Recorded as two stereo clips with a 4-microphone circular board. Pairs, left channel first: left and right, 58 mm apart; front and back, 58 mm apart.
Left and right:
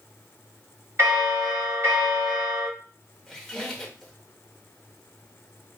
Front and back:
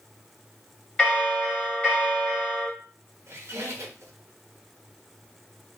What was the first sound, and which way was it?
A bell, 65° right.